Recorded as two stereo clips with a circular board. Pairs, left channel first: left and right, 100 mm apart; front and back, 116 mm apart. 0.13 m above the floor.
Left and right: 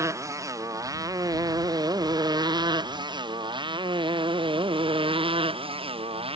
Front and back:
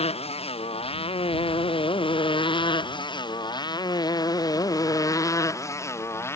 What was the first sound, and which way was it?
A motorcycle, 30° right.